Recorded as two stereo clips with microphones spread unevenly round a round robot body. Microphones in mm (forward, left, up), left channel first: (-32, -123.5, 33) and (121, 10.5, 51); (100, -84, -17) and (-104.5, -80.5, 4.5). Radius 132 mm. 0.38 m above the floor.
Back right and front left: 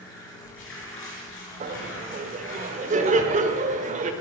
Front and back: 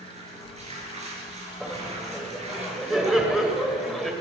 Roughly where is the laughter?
Left.